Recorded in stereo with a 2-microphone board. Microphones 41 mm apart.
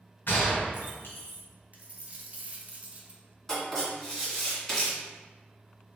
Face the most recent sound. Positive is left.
turn(degrees=10)  # may be behind; listen again after turning